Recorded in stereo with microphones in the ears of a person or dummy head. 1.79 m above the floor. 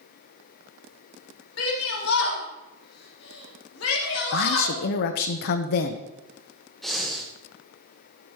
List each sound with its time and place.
1.6 s a shout: 85° left, 4 m
4.3 s a woman speaking: 60° left (ahead or behind), 1.1 m
6.8 s breathing: 5° left (ahead or behind), 1.7 m